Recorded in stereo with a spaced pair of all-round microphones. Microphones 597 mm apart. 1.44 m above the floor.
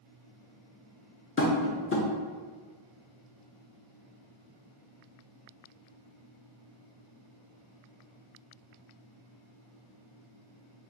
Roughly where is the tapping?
Left.